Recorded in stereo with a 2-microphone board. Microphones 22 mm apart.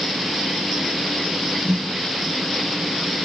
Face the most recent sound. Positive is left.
turn(degrees=65)  # may be behind; listen again after turning